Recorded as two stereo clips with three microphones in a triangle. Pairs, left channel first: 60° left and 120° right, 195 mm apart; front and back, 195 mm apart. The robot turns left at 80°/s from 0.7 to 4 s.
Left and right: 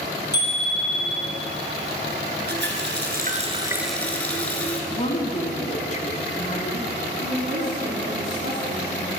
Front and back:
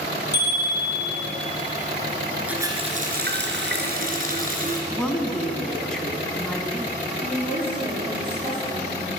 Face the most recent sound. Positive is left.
turn(degrees=-115)